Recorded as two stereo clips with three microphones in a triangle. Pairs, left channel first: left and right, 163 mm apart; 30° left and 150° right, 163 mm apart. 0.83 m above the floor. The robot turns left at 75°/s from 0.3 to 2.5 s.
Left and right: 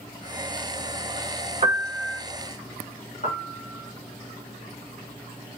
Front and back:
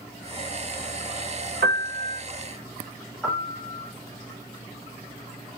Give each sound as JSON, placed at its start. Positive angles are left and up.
{"t": 1.6, "sound": "a piano", "azimuth_deg": -140, "distance_m": 1.2}
{"t": 3.2, "sound": "a piano", "azimuth_deg": 120, "distance_m": 2.0}